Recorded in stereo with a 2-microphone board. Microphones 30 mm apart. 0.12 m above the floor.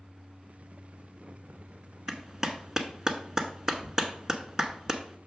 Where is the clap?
20° right (ahead or behind), 0.9 m.